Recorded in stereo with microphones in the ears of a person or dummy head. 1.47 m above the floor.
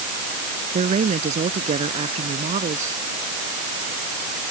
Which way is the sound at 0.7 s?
35° right (ahead or behind).